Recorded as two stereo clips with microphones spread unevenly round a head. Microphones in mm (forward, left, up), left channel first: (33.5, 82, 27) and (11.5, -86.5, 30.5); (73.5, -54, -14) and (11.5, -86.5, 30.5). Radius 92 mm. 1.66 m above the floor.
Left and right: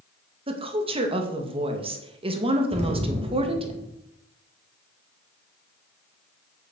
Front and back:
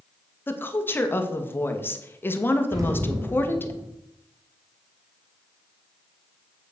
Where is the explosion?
155° right, 2.5 m.